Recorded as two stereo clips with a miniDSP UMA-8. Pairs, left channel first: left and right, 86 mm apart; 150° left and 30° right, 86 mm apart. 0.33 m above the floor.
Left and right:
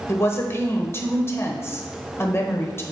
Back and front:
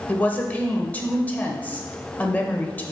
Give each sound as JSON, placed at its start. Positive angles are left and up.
{"t": 0.1, "sound": "a woman speaking", "azimuth_deg": 100, "distance_m": 1.0}